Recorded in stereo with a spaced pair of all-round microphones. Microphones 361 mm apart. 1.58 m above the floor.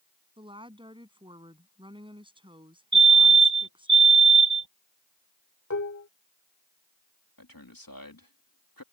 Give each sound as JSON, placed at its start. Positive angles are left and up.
{"t": 0.4, "sound": "a woman speaking", "side_deg": -15}
{"t": 2.9, "sound": "a fire alarm", "side_deg": -80}
{"t": 5.7, "sound": "dishes clattering", "side_deg": 45}
{"t": 7.4, "sound": "a man speaking", "side_deg": 60}